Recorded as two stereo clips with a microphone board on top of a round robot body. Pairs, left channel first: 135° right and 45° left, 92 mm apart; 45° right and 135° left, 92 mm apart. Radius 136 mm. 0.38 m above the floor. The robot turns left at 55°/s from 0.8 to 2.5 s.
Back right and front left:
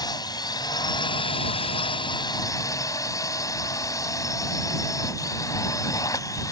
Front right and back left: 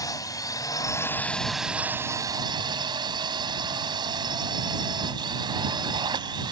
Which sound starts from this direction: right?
A drone, at 0.0 s.